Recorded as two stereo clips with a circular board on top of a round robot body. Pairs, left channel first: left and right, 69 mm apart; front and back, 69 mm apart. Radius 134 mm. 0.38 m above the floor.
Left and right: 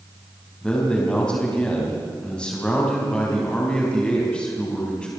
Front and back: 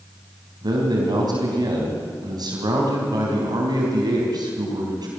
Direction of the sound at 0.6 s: 165° left.